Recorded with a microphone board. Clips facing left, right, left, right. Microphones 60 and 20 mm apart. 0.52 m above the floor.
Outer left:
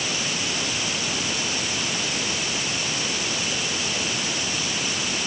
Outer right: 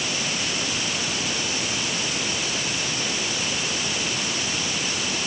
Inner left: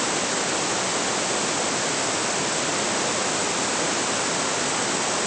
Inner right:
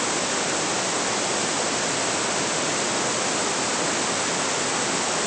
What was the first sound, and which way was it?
Only background noise.